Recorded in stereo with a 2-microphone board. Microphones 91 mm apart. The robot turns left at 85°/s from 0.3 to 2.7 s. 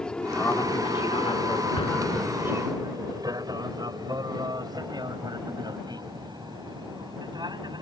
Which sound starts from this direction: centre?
An aircraft, at 0.0 s.